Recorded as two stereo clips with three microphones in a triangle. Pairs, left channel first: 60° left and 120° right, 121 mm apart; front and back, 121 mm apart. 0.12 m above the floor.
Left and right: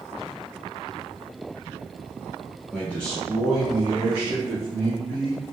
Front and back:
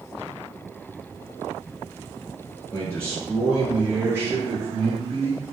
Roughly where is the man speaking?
Ahead.